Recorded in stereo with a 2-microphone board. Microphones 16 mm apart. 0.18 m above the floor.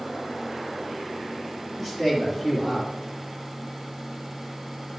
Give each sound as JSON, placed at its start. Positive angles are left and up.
{"t": 1.8, "sound": "a man speaking", "side_deg": -10, "distance_m": 3.0}